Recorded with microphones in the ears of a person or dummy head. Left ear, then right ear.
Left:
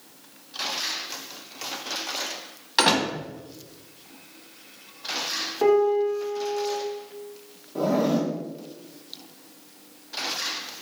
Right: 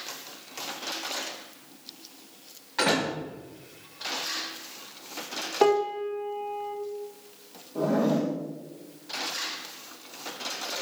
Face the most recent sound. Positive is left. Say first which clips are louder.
# left 2 dB
turn(degrees=25)  # may be behind; listen again after turning